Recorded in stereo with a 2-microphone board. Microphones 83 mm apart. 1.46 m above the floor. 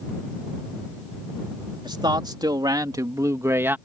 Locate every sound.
1.8 s a man speaking: 65° right (ahead or behind); by 3.8 s 25° right (ahead or behind)